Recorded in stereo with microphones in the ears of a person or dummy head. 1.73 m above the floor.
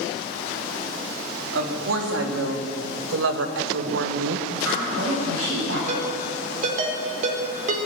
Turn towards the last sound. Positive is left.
turn(degrees=-50)  # may be behind; listen again after turning